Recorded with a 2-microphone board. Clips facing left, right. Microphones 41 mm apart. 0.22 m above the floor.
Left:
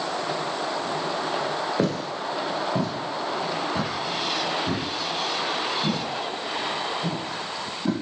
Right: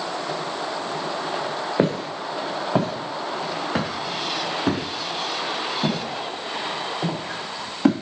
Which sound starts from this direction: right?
Footsteps, at 1.8 s.